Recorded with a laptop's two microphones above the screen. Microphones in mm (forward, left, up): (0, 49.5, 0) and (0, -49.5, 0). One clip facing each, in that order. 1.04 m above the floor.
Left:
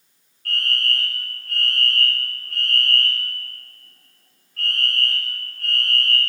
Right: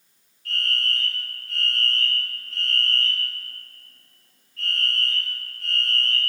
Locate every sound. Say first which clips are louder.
0.5 s a fire alarm: left 3 dB; 60° left (ahead or behind), 4.5 m